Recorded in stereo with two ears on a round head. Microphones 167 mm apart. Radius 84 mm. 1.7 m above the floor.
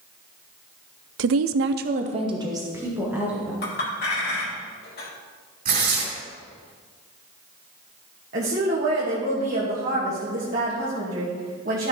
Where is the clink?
55° left (ahead or behind), 2.5 m.